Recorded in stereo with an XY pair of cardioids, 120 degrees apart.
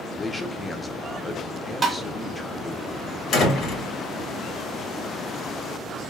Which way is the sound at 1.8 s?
35° right.